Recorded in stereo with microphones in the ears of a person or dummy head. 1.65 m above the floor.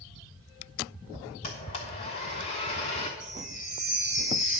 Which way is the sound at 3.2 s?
35° left (ahead or behind).